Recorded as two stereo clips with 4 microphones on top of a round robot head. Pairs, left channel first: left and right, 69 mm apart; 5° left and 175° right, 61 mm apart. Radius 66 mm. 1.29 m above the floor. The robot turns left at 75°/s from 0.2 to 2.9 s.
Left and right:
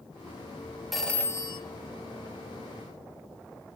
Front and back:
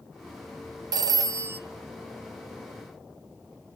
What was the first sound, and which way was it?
A phone ringing, straight behind.